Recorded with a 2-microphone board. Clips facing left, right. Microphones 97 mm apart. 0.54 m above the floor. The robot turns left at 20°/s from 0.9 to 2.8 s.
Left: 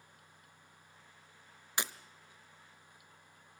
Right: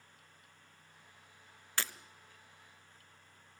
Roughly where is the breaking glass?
Centre.